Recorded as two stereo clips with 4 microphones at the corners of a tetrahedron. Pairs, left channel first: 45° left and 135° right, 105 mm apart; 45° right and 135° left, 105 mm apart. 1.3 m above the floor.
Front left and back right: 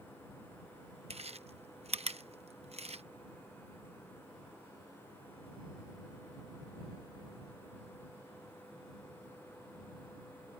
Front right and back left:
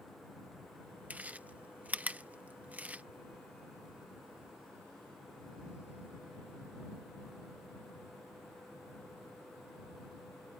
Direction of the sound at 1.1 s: 150° right.